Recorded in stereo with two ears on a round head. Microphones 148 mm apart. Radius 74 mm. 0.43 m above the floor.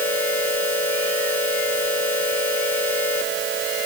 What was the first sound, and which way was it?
Only background noise.